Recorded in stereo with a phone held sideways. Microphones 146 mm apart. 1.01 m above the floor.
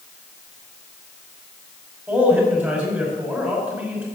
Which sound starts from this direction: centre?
A man speaking, at 2.1 s.